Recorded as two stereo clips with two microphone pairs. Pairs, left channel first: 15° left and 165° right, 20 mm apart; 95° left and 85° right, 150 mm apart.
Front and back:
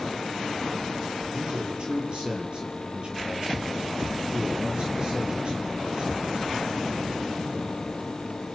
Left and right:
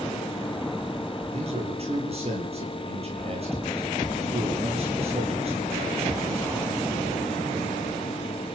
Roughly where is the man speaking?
Behind right.